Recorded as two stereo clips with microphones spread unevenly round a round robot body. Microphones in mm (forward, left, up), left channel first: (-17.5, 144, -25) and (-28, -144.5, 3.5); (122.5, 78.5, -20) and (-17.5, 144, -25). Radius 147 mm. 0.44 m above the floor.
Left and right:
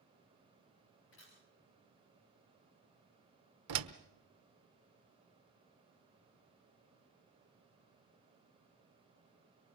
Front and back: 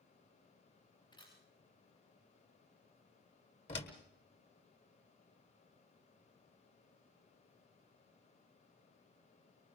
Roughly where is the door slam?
Right.